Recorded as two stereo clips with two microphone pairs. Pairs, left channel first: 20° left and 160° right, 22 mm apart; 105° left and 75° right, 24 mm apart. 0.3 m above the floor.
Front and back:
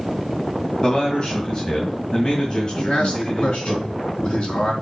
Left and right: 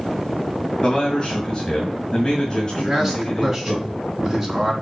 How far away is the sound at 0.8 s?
About 1.9 m.